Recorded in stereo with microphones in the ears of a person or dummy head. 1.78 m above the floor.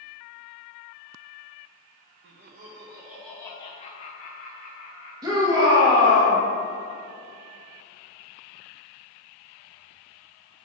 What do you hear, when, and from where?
2.2 s laughter: 50° right (ahead or behind), 0.6 m; by 5.1 s 45° left (ahead or behind), 1.3 m
5.2 s a shout: 20° right (ahead or behind), 2 m